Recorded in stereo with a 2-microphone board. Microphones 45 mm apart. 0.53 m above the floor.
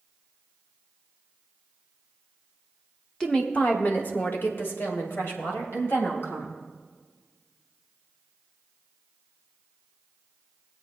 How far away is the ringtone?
I don't hear a ringtone.